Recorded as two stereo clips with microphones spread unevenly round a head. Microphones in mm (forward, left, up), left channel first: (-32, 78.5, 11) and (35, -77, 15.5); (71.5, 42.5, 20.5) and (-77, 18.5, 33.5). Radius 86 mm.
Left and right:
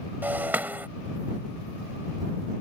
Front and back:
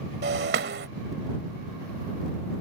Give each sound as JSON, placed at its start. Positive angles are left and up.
{"t": 0.2, "sound": "breaking glass", "azimuth_deg": -145}